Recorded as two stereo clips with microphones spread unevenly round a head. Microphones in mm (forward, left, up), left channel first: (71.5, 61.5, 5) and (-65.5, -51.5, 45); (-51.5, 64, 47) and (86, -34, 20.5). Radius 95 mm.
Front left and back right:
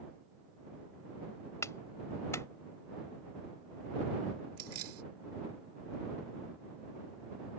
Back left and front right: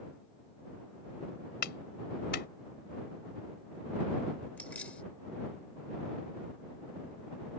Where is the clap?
120° left.